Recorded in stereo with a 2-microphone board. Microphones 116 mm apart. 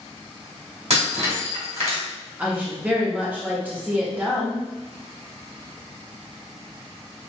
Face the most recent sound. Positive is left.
turn(degrees=-15)  # may be behind; listen again after turning